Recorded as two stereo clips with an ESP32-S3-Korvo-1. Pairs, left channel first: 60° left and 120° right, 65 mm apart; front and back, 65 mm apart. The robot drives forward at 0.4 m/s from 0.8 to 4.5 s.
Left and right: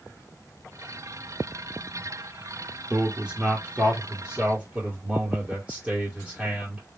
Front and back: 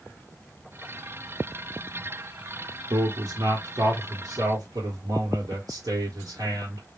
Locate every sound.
2.9 s a man speaking: 170° left, 1.3 m